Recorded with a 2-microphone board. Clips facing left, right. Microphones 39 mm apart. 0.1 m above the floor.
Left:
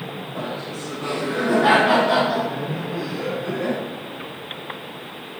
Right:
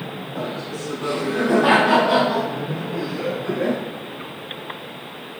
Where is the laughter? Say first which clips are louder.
Right 2 dB; 30° left (ahead or behind), 1.8 m; by 3.8 s 15° right (ahead or behind), 1.4 m.